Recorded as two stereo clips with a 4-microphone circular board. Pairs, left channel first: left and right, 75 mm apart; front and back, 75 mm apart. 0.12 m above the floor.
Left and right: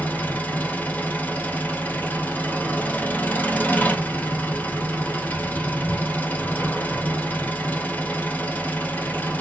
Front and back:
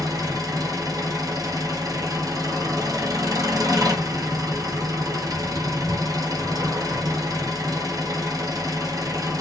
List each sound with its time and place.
0.0 s an engine running: 150° left, 1.7 m